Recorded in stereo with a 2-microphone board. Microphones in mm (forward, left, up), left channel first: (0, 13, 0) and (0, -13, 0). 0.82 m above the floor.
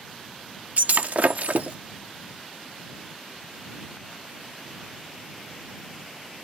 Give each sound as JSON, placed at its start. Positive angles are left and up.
{"t": 0.8, "sound": "breaking glass", "side_deg": -75}